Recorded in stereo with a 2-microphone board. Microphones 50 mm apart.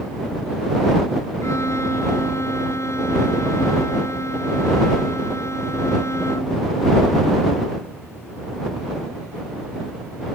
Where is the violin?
70° left (ahead or behind).